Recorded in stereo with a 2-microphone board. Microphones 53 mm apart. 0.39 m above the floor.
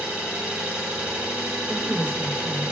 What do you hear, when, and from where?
0.0 s an engine running: 20° right (ahead or behind), 0.8 m
1.7 s a woman speaking: 20° right (ahead or behind), 0.8 m